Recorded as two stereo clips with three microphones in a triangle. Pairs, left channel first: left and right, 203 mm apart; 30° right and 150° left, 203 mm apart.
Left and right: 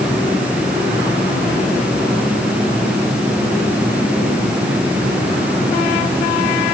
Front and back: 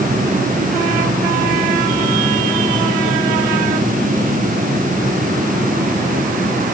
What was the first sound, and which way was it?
Only background noise.